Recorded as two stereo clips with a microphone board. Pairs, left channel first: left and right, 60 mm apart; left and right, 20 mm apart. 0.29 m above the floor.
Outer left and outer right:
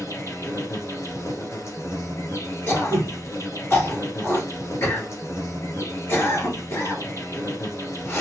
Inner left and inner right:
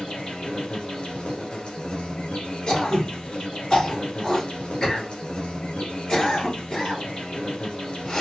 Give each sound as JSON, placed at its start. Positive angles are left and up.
{"t": 0.0, "sound": "an insect", "side_deg": 50, "distance_m": 2.5}
{"t": 2.7, "sound": "throat clearing", "side_deg": 40, "distance_m": 4.0}